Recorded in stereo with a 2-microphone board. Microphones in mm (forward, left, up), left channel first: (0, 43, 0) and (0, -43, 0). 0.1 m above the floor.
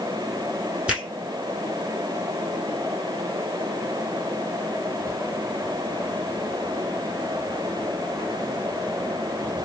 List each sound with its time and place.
0.9 s a finger snap: 15° right (ahead or behind), 2.5 m